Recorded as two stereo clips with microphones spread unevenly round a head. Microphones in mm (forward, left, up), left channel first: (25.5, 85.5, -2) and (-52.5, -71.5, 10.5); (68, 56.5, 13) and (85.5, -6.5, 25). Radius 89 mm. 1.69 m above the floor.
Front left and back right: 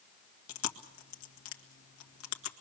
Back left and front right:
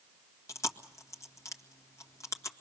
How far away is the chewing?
About 1.9 m.